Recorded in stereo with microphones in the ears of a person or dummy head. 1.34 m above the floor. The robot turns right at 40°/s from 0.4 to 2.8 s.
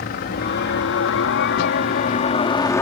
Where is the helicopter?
50° left (ahead or behind); by 2.8 s 15° left (ahead or behind).